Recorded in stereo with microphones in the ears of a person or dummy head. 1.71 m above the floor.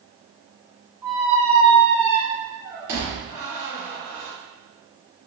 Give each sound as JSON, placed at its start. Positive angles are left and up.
{"t": 1.0, "sound": "a squeak", "side_deg": -15, "distance_m": 0.8}